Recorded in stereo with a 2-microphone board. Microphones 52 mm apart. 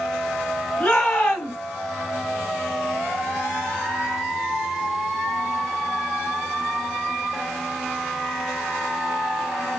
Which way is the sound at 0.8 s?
35° left (ahead or behind).